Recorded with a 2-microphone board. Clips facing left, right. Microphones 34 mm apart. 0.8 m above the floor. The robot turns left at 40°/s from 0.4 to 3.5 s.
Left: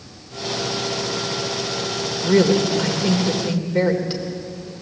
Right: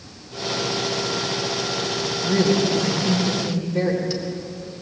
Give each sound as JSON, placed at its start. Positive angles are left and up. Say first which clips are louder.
{"t": 2.2, "sound": "a woman speaking", "louder": "left 3 dB", "azimuth_deg": 80, "distance_m": 3.0}